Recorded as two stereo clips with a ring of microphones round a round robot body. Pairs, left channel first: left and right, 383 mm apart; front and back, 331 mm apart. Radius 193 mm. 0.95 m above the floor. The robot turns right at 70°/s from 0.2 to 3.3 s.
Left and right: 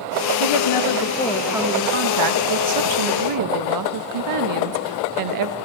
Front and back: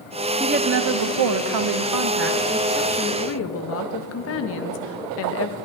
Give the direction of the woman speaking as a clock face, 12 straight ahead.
8 o'clock.